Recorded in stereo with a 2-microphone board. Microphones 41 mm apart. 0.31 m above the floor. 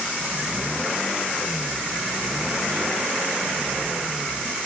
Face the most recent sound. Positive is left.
No sound to turn to.